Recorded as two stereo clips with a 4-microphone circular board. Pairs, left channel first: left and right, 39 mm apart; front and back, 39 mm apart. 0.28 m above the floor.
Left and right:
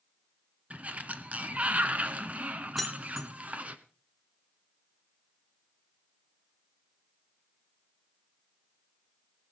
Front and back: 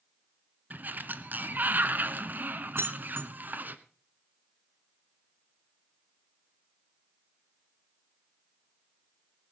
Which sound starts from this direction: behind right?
A sliding door, at 0.7 s.